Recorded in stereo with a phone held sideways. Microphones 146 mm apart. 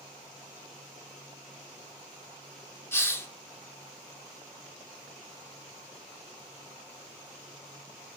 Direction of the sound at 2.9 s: 15° left (ahead or behind).